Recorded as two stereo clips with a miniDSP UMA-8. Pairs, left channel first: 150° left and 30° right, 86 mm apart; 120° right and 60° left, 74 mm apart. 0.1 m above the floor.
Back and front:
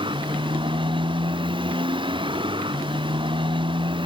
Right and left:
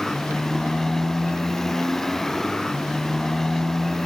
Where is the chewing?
No chewing in this recording.